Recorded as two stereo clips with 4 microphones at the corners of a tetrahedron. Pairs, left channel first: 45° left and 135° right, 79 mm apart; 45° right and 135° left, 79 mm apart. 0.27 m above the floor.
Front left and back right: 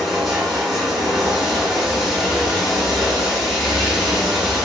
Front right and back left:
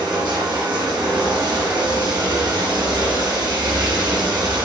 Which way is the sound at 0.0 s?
135° left.